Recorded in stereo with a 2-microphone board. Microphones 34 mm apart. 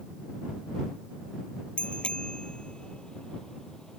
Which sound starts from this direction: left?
A bicycle bell, at 1.8 s.